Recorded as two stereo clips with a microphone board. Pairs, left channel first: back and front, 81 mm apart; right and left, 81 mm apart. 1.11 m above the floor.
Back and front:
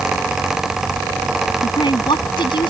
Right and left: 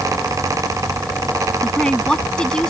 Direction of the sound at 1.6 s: 170° right.